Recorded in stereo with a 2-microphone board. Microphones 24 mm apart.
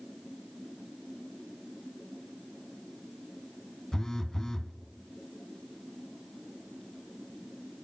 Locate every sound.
3.9 s a phone buzzing: 25° left (ahead or behind), 0.7 m